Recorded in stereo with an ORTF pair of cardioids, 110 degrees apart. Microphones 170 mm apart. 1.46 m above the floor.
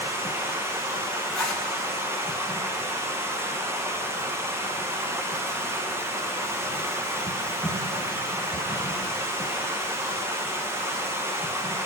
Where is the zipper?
5° left, 2 m.